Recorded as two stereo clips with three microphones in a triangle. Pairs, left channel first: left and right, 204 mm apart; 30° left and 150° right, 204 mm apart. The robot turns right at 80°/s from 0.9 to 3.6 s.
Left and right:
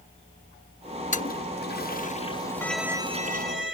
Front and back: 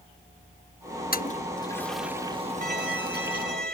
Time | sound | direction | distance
1.1 | a toilet flushing | 55° left | ?
2.6 | a violin | 165° left | ?